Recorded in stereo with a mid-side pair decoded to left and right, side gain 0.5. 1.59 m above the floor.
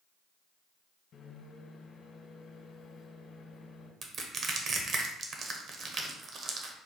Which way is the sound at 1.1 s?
55° left.